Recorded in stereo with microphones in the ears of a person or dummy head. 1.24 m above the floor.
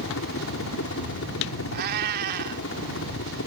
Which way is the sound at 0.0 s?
70° left (ahead or behind).